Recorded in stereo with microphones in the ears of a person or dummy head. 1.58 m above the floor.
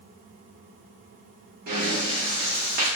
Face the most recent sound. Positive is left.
turn(degrees=-55)  # may be behind; listen again after turning